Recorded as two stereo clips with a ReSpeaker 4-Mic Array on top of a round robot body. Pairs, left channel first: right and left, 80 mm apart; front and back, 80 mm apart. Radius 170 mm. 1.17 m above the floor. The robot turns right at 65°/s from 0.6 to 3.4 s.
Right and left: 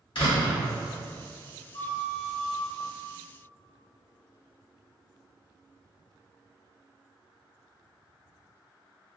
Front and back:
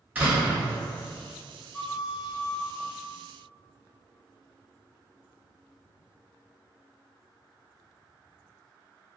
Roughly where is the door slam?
Right.